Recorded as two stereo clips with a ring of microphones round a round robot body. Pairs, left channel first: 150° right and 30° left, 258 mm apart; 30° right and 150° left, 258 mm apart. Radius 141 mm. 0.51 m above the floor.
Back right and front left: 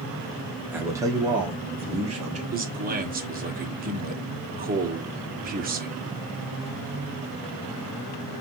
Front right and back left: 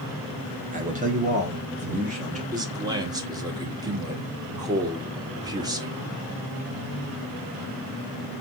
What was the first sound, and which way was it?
A man speaking, 110° left.